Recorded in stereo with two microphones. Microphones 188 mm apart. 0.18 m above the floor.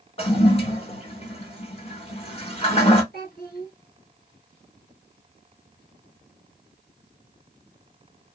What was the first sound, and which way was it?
A toilet flushing, 30° left (ahead or behind).